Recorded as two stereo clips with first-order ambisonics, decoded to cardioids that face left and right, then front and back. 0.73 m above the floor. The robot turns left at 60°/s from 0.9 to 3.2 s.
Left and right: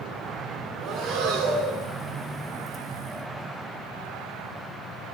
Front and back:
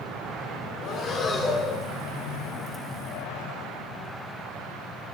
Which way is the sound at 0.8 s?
45° right.